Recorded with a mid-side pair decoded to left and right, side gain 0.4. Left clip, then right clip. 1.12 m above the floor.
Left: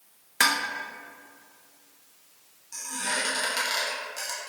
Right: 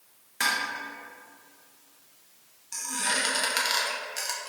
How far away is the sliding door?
No sliding door in this recording.